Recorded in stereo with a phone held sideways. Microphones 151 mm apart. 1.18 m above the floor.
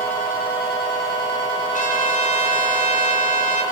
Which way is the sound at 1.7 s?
60° left (ahead or behind).